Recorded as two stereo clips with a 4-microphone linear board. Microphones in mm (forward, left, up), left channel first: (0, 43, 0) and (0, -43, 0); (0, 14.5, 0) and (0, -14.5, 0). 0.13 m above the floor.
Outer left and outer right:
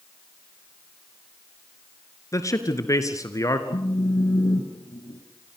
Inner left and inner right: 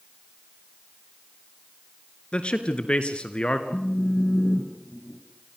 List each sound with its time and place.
2.3 s a man speaking: 40° left (ahead or behind), 2.0 m
3.7 s a phone buzzing: 55° left (ahead or behind), 2.5 m